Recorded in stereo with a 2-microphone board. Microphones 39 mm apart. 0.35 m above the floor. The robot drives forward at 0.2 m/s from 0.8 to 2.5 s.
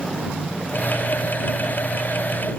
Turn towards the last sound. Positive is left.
No sound to turn to.